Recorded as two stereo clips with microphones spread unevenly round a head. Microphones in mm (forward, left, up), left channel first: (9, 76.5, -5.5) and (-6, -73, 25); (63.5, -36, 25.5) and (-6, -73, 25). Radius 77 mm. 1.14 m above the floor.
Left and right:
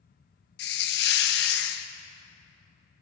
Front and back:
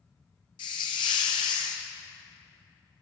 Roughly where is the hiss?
Left.